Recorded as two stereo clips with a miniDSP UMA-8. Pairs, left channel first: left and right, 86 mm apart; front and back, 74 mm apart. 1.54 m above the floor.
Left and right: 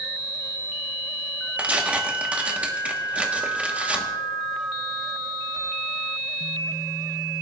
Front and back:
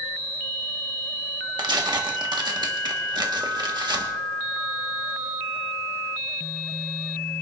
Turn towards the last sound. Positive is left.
turn(degrees=-165)